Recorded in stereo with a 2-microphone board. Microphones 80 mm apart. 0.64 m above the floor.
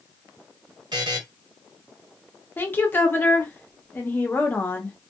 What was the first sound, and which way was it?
A buzzer, 65° right (ahead or behind).